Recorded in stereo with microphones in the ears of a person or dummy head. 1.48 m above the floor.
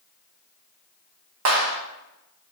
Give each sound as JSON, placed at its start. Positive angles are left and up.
{"t": 1.4, "sound": "a clap", "side_deg": -75, "distance_m": 1.4}